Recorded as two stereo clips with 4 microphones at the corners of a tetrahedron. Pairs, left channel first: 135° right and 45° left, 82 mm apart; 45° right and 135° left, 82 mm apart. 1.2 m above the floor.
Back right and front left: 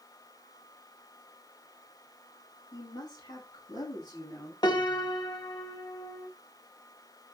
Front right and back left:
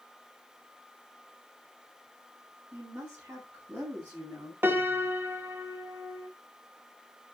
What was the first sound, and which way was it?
A woman speaking, 155° right.